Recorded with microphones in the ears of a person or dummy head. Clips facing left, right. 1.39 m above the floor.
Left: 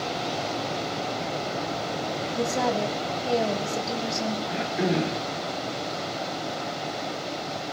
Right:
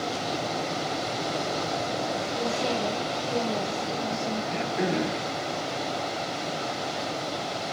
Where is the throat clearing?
Centre (ahead or behind), 4.5 m.